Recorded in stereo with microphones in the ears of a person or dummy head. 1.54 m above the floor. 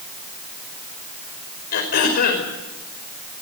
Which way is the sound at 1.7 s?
60° left (ahead or behind).